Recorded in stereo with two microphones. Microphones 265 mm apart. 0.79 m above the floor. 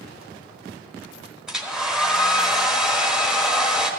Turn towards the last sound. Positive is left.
turn(degrees=0)  # may be behind; listen again after turning